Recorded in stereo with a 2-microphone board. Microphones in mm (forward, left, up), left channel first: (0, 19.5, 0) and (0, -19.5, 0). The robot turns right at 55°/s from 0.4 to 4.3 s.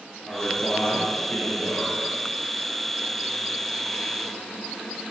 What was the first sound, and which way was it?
A man speaking, straight ahead.